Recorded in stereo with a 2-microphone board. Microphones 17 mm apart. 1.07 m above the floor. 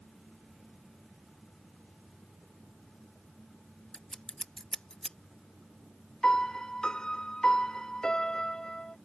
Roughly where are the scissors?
Left.